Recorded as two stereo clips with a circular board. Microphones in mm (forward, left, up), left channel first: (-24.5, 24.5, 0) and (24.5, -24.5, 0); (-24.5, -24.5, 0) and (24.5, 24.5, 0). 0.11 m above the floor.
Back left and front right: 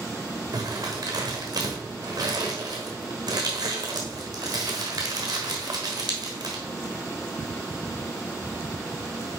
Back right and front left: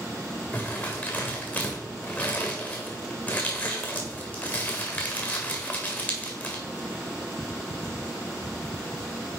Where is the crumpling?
70° right, 1.5 m.